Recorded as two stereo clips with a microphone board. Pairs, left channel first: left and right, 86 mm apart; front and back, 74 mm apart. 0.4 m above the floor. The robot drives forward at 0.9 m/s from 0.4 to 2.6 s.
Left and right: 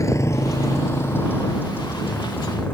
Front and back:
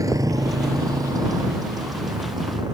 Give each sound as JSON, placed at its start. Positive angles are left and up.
{"t": 0.0, "sound": "a motorcycle", "azimuth_deg": 140}